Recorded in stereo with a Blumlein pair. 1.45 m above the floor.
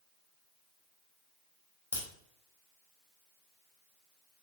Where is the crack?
65° left, 1.4 m.